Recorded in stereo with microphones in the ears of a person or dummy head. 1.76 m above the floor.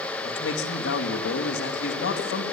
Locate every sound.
0.2 s a man speaking: 75° left (ahead or behind), 2.5 m